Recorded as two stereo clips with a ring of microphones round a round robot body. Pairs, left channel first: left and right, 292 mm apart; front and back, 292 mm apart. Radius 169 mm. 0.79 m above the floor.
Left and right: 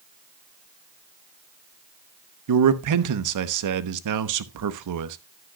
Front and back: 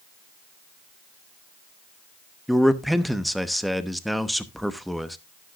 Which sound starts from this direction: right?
A man speaking, at 2.5 s.